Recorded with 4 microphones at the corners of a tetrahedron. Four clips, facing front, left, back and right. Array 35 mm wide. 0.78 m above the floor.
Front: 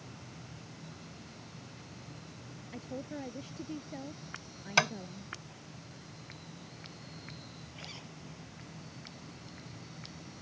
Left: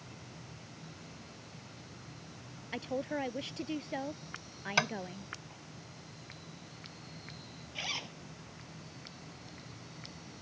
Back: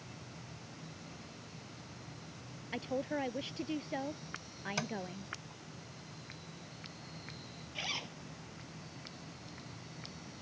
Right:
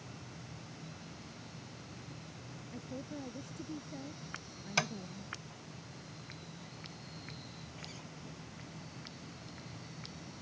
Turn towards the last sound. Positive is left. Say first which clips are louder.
# left 15 dB, back 10 dB
turn(degrees=125)